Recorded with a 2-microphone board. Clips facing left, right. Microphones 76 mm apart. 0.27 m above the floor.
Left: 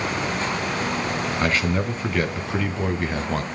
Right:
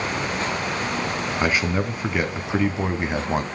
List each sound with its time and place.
1.4 s a man speaking: 10° right (ahead or behind), 2.5 m; by 3.4 s 20° right (ahead or behind), 1.7 m